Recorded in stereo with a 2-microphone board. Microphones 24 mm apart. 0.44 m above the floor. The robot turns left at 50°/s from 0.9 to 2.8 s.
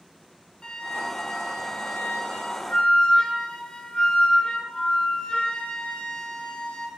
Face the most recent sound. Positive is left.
turn(degrees=45)